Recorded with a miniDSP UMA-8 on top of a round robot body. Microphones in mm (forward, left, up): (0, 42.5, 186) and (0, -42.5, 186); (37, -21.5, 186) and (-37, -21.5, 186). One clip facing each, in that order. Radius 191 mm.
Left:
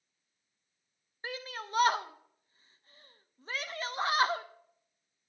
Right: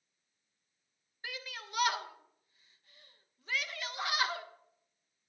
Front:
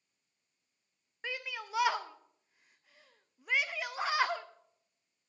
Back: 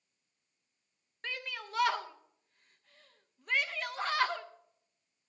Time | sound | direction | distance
1.2 | a shout | 80° left | 0.9 m